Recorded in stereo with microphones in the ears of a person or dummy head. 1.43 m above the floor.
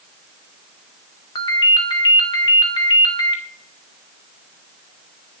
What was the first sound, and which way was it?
A ringtone, 35° left (ahead or behind).